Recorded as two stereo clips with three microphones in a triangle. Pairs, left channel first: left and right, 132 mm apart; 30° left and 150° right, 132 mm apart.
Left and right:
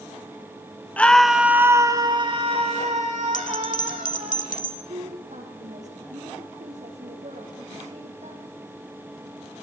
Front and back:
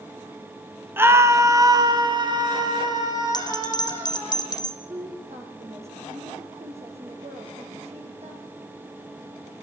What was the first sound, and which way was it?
A scream, 155° left.